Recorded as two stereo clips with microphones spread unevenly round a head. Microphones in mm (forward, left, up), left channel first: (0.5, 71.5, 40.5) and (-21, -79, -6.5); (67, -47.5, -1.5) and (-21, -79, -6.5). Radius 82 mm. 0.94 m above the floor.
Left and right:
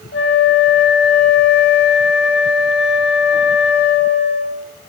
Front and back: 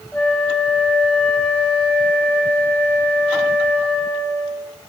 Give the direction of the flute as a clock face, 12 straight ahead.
9 o'clock.